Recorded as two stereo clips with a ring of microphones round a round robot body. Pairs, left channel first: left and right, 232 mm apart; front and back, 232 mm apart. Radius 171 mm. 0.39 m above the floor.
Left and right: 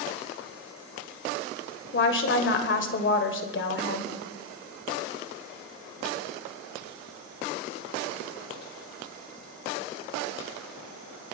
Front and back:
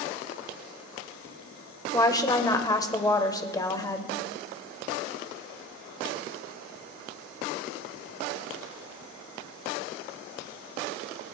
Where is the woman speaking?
70° left, 1.6 m.